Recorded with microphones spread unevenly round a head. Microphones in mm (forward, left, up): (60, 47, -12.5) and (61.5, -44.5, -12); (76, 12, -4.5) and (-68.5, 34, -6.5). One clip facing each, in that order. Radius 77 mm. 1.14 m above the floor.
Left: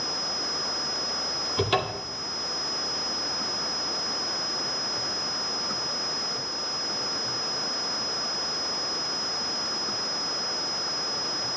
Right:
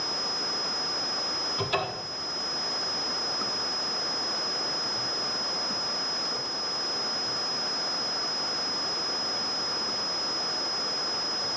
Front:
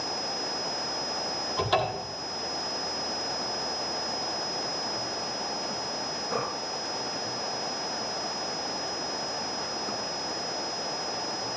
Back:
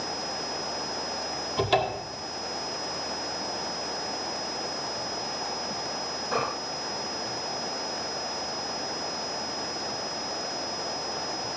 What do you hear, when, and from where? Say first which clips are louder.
1.6 s a cupboard door: left 4 dB, back 2 dB; 105° left, 2.0 m